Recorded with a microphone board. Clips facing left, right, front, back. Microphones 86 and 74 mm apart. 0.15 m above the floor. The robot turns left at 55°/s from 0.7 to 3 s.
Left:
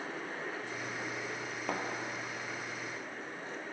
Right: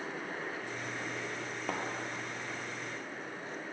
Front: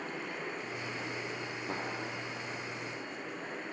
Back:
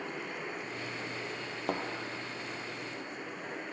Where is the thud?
Straight behind, 1.0 m; by 1.8 s 170° left, 1.0 m.